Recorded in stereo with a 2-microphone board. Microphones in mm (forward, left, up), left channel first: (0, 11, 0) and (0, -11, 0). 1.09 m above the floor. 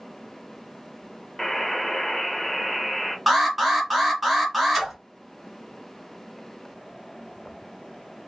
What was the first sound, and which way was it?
A buzzer, 10° left (ahead or behind).